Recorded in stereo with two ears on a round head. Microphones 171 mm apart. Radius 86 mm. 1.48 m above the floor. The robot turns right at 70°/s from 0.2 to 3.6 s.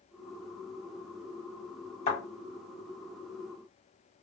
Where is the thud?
40° left (ahead or behind), 1.7 m; by 2.2 s 35° left (ahead or behind), 1.7 m.